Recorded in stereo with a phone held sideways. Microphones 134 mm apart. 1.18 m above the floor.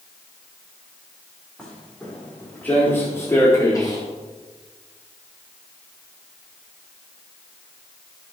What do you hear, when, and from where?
1.6 s footsteps: 5° left (ahead or behind), 5.5 m; by 4.0 s 30° left (ahead or behind), 4 m